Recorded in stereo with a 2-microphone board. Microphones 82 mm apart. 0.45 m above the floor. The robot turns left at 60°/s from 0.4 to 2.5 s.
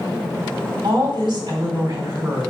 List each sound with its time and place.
0.8 s a woman speaking: 40° right, 3 m; by 2.5 s 140° right, 3 m